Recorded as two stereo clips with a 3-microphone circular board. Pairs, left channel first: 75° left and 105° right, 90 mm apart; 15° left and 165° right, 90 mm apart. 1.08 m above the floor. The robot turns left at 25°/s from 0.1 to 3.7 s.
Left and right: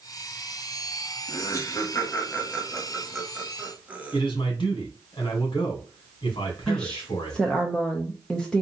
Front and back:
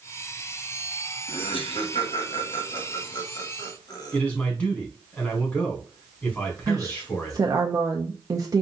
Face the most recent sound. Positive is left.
turn(degrees=155)